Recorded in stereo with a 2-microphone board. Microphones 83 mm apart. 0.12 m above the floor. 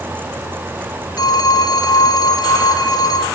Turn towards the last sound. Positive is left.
turn(degrees=50)  # may be behind; listen again after turning